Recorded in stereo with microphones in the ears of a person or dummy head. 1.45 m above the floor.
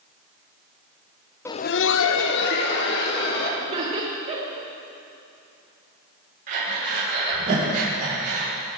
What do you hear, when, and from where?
1.4 s laughter: 10° left (ahead or behind), 0.5 m; by 3.5 s 60° left (ahead or behind), 3 m
3.6 s laughter: 35° right (ahead or behind), 3 m
6.5 s breathing: 50° right (ahead or behind), 5.5 m